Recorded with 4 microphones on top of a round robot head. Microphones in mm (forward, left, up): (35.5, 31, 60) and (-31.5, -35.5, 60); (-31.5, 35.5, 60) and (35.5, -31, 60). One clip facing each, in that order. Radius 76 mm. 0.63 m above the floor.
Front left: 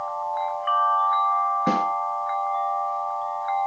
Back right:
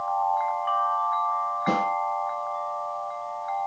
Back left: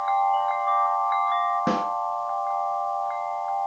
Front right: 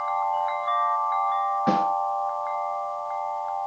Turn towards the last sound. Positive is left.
turn(degrees=75)